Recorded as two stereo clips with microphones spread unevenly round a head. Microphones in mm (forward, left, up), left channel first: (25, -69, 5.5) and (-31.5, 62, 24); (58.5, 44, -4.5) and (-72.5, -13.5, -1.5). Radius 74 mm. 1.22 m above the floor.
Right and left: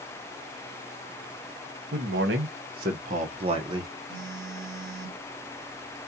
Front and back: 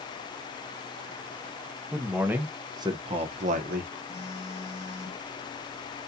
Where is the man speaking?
120° left, 1.2 m; by 3.9 s 175° right, 0.9 m.